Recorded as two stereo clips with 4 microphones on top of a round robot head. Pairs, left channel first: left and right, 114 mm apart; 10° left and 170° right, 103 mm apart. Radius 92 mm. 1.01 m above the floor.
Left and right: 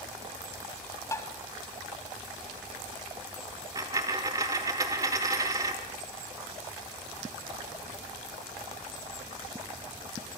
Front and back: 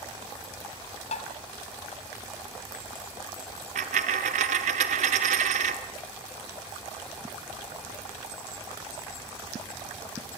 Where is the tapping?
25° left, 1.5 m.